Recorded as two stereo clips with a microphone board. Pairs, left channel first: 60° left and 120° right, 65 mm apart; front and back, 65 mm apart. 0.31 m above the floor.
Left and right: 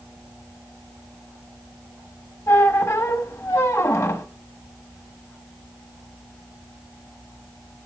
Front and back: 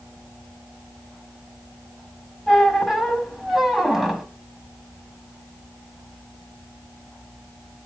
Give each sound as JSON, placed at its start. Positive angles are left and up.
{"t": 2.5, "sound": "a squeak", "azimuth_deg": 95, "distance_m": 1.0}